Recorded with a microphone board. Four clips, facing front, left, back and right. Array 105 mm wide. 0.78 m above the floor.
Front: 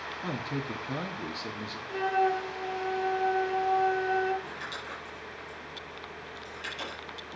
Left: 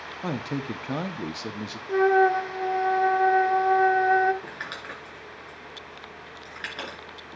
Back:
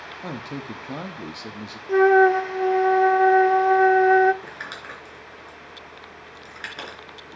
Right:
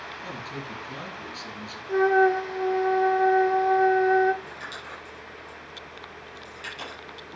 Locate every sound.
0.2 s a man speaking: 110° left, 1.1 m
1.9 s a flute: 175° left, 0.5 m
4.4 s crumpling: 145° left, 3.5 m